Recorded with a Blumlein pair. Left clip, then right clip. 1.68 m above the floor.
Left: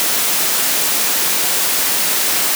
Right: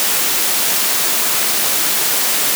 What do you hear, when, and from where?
Only background noise.